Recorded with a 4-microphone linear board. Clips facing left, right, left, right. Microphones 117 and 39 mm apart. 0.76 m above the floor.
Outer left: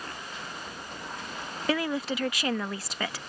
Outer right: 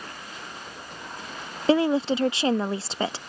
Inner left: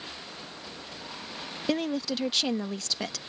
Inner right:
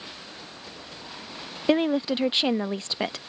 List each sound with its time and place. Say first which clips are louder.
1.7 s a woman speaking: outer right 8 dB, inner right 7 dB; 30° right (ahead or behind)